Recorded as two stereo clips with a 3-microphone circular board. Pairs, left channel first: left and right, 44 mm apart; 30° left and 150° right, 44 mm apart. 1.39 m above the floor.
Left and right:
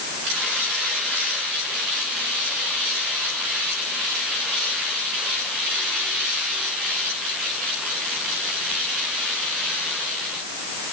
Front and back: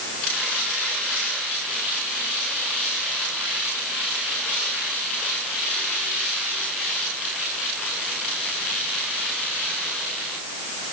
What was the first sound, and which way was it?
Only background noise.